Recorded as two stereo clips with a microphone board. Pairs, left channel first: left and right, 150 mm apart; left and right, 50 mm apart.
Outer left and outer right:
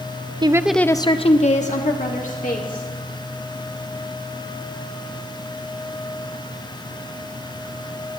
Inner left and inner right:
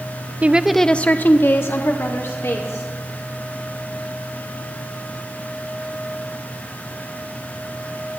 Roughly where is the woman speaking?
Right.